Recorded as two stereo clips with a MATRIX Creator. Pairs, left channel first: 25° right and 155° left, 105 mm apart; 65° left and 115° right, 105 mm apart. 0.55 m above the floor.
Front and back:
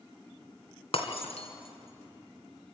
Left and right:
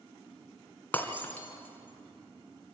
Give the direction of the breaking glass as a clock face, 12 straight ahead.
12 o'clock.